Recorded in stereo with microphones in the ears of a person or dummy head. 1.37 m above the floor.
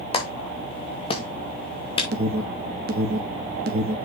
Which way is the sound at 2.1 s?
50° right (ahead or behind).